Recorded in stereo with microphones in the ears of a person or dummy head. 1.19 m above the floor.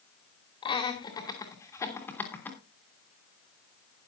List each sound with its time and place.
0.6 s laughter: 25° left (ahead or behind), 2.5 m; by 2.6 s 5° left (ahead or behind), 3 m